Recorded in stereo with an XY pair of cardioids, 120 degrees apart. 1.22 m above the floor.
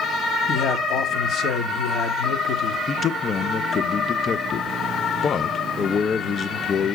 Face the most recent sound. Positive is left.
turn(degrees=40)